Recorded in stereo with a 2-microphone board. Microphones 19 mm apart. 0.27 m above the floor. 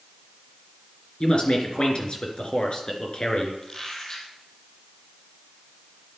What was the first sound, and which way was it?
A man speaking, 50° left (ahead or behind).